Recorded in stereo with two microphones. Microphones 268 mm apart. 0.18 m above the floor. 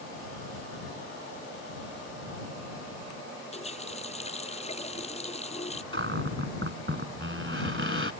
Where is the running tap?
25° left (ahead or behind).